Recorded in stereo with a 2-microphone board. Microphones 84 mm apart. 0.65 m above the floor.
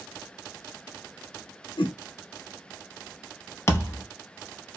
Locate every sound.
1.8 s a whoosh: 70° left (ahead or behind), 0.8 m
3.7 s a thud: 30° left (ahead or behind), 0.7 m